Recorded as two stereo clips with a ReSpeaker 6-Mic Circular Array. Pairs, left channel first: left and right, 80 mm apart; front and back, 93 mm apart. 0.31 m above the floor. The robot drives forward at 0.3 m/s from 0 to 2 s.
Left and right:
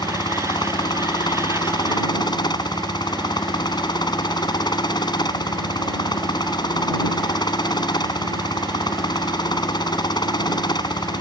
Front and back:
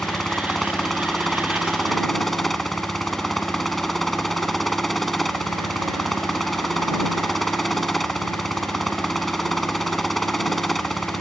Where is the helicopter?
85° left; by 11.2 s 90° left.